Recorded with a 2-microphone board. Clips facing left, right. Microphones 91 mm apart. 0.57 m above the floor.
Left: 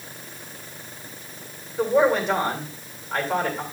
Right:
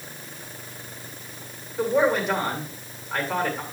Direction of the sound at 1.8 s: Centre (ahead or behind).